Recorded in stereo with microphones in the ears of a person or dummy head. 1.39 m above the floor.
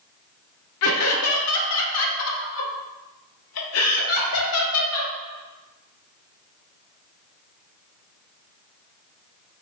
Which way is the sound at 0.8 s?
70° left (ahead or behind).